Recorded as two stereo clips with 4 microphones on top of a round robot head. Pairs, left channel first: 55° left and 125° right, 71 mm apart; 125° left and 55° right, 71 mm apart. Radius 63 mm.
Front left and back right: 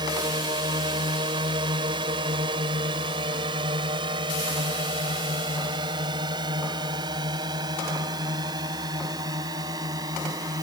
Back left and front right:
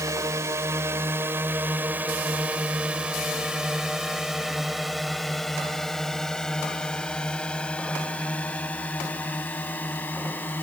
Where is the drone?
105° right; by 10.6 s 165° right.